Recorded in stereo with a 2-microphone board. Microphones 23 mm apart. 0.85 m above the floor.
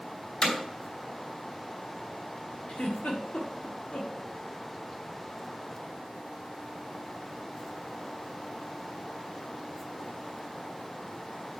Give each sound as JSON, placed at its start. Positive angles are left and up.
{"t": 0.4, "sound": "hammering", "side_deg": 45, "distance_m": 3.5}
{"t": 2.7, "sound": "a giggle", "side_deg": 60, "distance_m": 1.5}